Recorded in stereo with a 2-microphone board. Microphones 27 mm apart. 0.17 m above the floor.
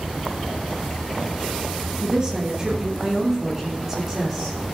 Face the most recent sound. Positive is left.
turn(degrees=-20)  # may be behind; listen again after turning